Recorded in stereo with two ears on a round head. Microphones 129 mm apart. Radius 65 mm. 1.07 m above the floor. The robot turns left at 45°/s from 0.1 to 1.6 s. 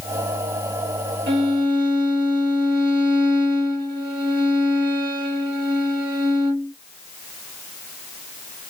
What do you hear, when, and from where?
1.3 s a violin: 90° right, 1.7 m; by 6.7 s 75° right (ahead or behind), 1.7 m